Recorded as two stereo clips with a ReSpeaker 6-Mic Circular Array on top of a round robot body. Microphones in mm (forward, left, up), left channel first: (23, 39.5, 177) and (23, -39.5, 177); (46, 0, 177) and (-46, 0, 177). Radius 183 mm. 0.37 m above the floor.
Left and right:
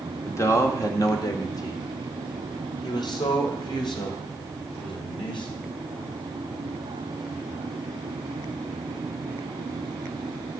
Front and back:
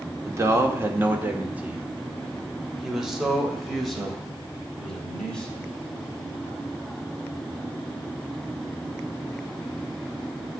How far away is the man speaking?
About 2.0 m.